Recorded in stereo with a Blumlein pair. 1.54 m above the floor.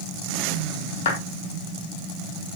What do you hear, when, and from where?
1.1 s a clap: 60° left, 3 m